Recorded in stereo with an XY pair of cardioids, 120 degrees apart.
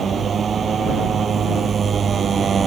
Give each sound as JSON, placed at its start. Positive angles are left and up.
{"t": 0.0, "sound": "a motorcycle", "azimuth_deg": -35}